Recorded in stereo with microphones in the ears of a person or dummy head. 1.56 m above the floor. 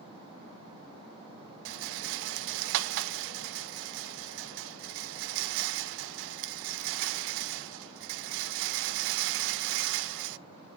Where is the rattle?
70° right (ahead or behind), 0.5 m.